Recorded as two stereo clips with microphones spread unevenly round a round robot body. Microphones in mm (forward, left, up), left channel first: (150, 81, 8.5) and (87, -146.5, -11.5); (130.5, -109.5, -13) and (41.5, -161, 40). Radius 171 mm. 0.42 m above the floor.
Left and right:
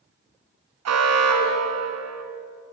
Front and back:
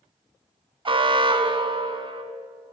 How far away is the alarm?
About 3 m.